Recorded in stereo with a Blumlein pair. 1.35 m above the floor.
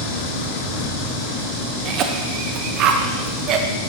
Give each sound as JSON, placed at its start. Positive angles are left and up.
{"t": 1.9, "sound": "a cough", "azimuth_deg": -35, "distance_m": 0.8}